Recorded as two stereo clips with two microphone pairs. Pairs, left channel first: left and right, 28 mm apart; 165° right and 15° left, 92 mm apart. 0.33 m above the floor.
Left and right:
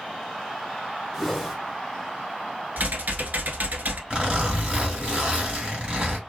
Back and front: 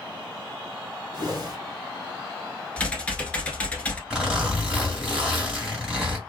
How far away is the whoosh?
About 1.1 m.